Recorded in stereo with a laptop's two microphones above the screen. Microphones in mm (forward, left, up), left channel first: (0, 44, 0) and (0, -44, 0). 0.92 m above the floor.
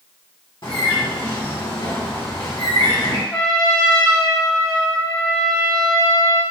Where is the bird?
70° left (ahead or behind), 1.7 m.